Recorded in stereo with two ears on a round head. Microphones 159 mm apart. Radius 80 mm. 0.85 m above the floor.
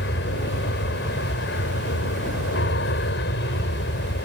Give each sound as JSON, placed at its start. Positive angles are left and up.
{"t": 0.0, "sound": "an aircraft", "side_deg": 65}